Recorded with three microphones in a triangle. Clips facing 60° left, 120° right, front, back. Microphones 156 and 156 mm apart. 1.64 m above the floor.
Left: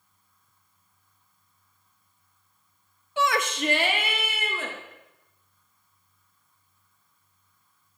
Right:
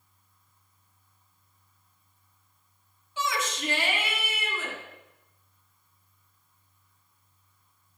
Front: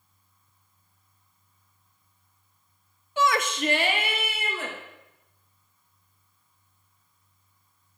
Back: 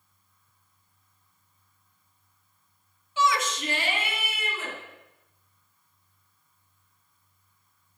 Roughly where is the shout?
Ahead left.